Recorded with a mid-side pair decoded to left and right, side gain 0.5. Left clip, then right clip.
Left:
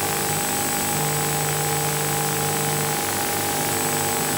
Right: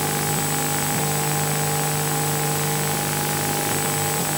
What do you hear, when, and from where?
Only background noise.